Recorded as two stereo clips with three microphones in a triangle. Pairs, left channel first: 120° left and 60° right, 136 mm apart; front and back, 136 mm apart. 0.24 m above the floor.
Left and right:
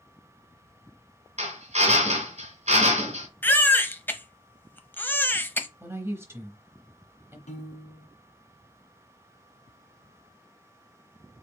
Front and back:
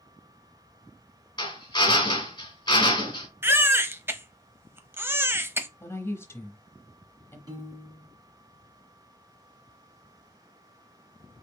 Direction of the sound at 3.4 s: 155° left.